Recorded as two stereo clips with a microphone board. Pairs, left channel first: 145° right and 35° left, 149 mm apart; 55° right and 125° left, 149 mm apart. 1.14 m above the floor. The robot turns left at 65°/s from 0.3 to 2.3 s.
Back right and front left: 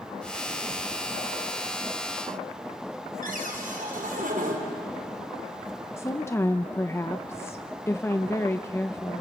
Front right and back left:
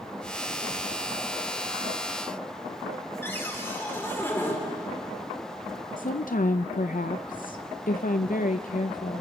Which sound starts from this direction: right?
A woman speaking, at 6.0 s.